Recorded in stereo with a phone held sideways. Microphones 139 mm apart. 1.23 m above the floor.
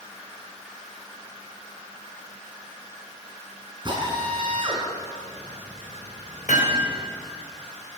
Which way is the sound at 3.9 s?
35° right (ahead or behind).